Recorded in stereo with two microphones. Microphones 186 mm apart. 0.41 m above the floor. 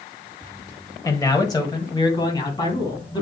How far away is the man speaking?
About 1.3 m.